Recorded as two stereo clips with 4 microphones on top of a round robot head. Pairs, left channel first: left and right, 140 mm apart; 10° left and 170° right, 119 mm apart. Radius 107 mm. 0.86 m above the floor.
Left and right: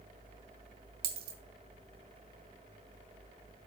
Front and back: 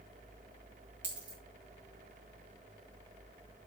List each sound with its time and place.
1.0 s a dropped coin: 90° right, 2.0 m